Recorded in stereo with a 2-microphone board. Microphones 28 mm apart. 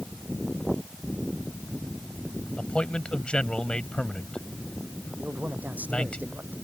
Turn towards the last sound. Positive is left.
turn(degrees=-85)